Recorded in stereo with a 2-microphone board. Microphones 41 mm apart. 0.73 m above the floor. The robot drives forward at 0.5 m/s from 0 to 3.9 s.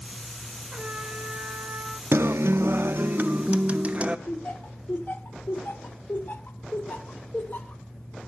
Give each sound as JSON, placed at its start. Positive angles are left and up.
{"t": 0.7, "sound": "a trumpet", "side_deg": -30, "distance_m": 1.9}
{"t": 2.1, "sound": "a guitar", "side_deg": -65, "distance_m": 0.5}
{"t": 4.3, "sound": "laughter", "side_deg": 55, "distance_m": 1.9}